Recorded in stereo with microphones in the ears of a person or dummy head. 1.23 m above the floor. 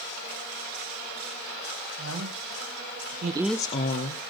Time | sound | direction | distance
2.0 | a woman speaking | 80° right | 2 m